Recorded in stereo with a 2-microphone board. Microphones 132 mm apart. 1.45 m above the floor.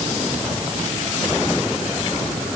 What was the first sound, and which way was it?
Only background noise.